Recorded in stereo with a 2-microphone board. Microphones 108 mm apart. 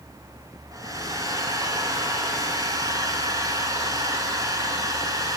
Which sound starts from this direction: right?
A hair dryer, at 0.7 s.